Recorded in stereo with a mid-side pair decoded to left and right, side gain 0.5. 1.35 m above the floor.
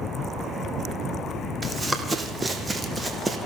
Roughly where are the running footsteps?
Ahead right.